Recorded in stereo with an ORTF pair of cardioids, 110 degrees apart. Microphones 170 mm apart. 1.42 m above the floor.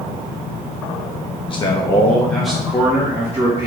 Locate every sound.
1.5 s a man speaking: 30° left, 0.9 m; by 3.7 s 20° right, 1.6 m